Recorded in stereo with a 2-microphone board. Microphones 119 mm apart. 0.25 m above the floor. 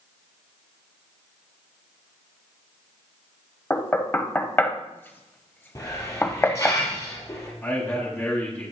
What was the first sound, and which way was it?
Knocking, 20° left (ahead or behind).